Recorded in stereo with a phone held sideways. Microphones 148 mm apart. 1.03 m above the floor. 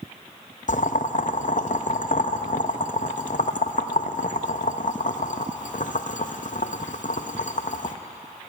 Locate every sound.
0.7 s boiling: 60° left (ahead or behind), 0.5 m